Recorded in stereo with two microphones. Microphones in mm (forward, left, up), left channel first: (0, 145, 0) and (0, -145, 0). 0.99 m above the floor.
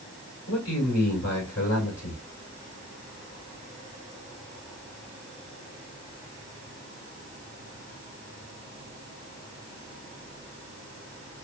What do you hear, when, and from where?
0.5 s a man speaking: 60° left (ahead or behind), 4.5 m